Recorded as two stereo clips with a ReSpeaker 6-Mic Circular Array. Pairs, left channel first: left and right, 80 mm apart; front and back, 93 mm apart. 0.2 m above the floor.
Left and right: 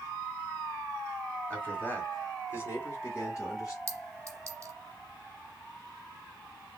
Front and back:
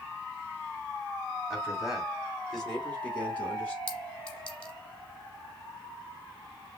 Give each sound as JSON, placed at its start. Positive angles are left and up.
{"t": 1.5, "sound": "a man speaking", "azimuth_deg": 120, "distance_m": 1.6}
{"t": 3.9, "sound": "a clink", "azimuth_deg": -75, "distance_m": 1.0}